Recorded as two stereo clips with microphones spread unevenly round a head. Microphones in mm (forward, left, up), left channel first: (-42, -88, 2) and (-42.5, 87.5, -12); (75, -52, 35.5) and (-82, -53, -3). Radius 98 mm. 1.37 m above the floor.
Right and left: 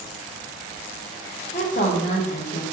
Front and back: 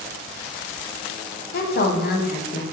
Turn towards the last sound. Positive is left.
turn(degrees=-30)